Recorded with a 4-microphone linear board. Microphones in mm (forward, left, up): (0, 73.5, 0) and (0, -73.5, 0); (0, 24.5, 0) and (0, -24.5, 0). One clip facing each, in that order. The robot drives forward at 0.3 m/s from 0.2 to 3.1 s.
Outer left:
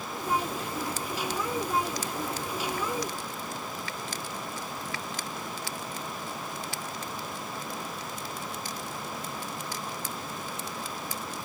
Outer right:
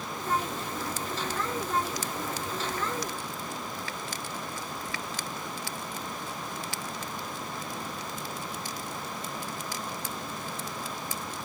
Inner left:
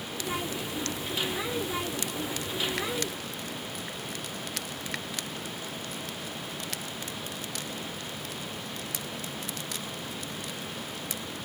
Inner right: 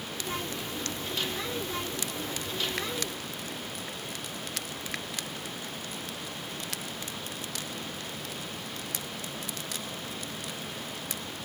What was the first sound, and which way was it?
Only background noise.